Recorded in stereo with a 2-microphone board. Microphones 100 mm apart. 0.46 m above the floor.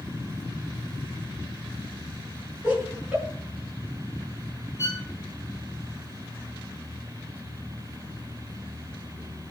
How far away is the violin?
About 1.8 m.